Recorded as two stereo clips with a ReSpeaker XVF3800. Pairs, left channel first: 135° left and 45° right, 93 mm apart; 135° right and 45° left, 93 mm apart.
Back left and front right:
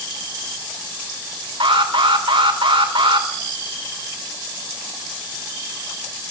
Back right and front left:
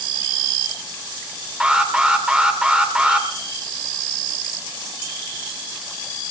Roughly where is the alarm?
Ahead right.